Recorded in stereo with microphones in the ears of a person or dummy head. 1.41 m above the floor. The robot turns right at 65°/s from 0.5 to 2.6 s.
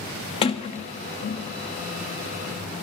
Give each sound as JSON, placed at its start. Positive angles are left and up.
{"t": 0.4, "sound": "a sliding door", "side_deg": 30, "distance_m": 1.1}